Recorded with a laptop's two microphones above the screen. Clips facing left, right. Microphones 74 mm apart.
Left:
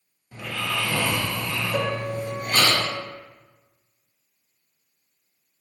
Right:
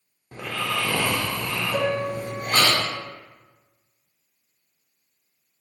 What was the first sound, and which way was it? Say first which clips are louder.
Snoring: right 1 dB; 50° right (ahead or behind).